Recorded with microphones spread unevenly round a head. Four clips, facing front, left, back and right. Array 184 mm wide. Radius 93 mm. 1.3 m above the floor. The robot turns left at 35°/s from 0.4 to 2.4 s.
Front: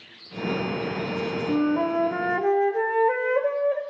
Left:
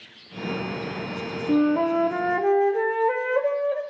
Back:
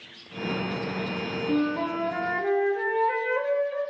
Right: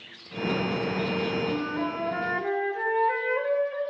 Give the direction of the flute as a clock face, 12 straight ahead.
9 o'clock.